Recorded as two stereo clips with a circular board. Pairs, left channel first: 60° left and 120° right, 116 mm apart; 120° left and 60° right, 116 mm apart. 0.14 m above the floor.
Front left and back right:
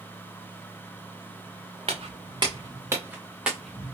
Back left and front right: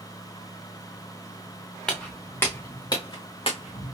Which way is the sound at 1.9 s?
155° right.